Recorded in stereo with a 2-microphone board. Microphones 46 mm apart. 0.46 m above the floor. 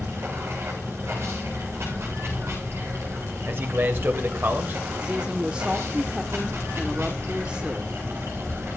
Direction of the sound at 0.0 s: 60° right (ahead or behind).